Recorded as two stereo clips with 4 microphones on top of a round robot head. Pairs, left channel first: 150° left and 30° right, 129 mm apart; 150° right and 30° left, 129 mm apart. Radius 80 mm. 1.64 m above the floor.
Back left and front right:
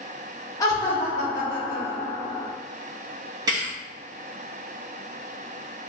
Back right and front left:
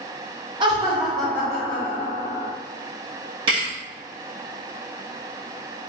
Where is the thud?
10° left, 1.0 m.